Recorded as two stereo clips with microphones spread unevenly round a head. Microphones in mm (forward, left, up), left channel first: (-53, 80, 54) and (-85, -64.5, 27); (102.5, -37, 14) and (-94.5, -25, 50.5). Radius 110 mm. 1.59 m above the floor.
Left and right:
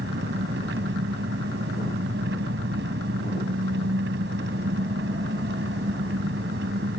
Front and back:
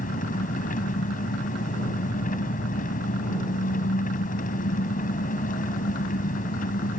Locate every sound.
0.0 s an engine running: 60° right